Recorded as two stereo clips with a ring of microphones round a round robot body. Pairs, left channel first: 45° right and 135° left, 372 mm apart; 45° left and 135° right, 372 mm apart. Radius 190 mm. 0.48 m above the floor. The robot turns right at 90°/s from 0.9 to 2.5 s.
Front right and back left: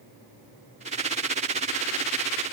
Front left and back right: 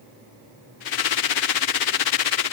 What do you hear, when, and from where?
Only background noise.